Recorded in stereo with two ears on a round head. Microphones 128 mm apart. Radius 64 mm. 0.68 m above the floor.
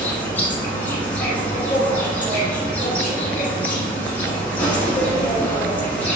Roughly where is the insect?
Centre.